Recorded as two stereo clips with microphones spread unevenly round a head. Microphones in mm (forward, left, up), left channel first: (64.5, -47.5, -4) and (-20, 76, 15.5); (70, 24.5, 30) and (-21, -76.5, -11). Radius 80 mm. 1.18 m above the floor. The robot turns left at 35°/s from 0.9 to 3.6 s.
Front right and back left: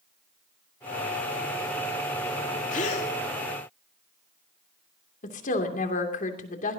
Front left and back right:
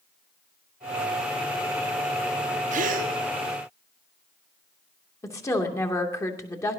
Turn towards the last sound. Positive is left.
turn(degrees=-20)